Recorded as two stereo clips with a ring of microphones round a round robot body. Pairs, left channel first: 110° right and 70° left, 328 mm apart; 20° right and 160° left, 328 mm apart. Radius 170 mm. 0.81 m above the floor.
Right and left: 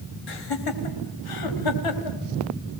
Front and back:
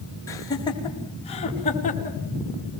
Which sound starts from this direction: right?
Laughter, at 0.3 s.